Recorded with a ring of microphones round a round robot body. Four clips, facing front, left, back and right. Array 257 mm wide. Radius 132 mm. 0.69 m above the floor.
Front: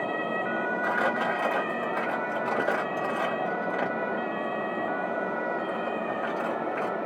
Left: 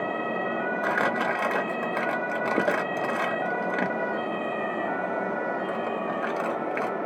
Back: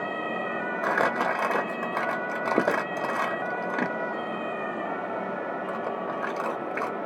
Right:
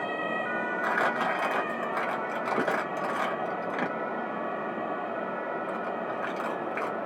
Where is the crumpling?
160° left, 1.0 m.